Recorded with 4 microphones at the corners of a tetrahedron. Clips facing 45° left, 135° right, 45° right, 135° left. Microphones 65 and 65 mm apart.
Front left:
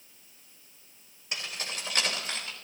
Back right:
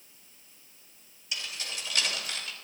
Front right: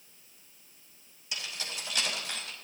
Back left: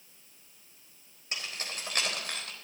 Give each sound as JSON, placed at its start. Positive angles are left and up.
{"t": 1.3, "sound": "keys jangling", "azimuth_deg": 85, "distance_m": 3.5}